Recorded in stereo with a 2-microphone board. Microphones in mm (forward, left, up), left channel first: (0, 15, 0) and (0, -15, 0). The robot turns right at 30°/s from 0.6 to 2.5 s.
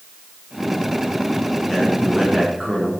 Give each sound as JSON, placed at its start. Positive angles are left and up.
{"t": 1.7, "sound": "a man speaking", "side_deg": 10, "distance_m": 8.0}